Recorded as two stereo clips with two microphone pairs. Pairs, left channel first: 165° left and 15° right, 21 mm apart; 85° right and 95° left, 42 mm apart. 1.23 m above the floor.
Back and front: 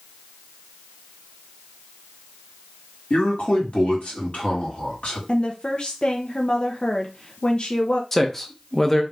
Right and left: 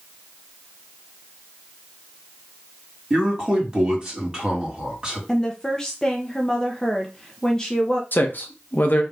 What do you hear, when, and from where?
3.1 s a man speaking: 165° left, 2.5 m
5.3 s a woman speaking: 160° right, 0.7 m
8.1 s a man speaking: 120° right, 0.8 m